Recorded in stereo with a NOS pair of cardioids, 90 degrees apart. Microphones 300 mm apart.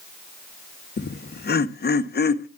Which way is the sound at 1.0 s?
35° left.